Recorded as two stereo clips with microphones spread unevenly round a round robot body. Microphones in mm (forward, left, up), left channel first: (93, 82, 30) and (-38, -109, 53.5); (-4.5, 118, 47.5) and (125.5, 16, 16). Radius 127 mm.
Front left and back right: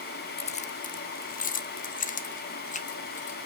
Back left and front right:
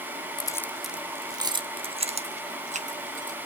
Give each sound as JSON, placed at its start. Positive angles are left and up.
{"t": 0.4, "sound": "keys jangling", "azimuth_deg": 80, "distance_m": 0.7}